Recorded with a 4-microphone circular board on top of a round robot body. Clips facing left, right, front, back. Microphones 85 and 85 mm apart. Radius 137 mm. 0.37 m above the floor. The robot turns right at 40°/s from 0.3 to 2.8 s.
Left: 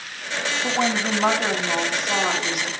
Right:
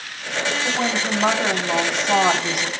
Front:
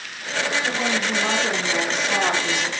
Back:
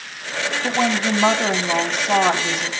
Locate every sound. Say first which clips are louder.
0.6 s a woman speaking: left 4 dB, back 4 dB; 155° left, 3 m; by 2.7 s 120° right, 3 m